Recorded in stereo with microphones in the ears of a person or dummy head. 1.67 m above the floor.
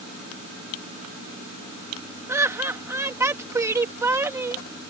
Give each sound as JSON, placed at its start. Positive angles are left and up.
{"t": 2.3, "sound": "laughter", "side_deg": -10}